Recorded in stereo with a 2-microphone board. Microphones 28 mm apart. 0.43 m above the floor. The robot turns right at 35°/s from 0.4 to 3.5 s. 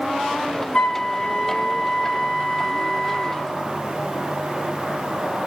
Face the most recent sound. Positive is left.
turn(degrees=165)